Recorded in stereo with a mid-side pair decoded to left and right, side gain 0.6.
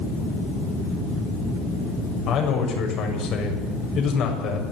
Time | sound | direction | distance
2.3 | a man speaking | 55° left | 6.5 m